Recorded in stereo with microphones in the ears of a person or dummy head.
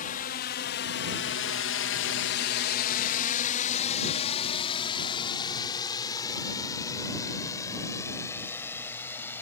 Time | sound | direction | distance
0.0 | a drone | 40° left (ahead or behind) | ?